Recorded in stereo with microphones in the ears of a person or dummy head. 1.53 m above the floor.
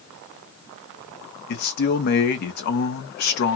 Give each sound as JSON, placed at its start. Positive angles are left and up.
{"t": 1.5, "sound": "a man speaking", "side_deg": 50, "distance_m": 0.8}